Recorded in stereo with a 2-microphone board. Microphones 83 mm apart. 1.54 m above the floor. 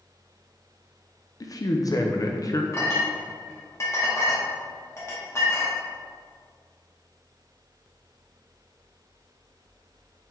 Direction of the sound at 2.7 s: 35° left (ahead or behind).